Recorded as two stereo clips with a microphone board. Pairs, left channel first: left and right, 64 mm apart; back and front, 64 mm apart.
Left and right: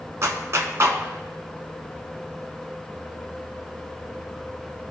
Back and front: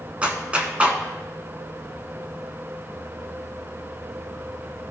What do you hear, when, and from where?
0.2 s a clap: 65° right, 1.1 m